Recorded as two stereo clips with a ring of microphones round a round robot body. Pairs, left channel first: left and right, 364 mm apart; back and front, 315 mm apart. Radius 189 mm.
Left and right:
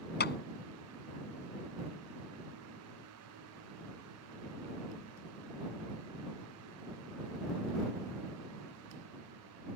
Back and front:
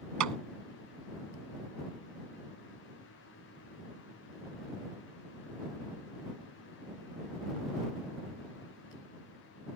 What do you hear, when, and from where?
0.2 s a clap: 25° left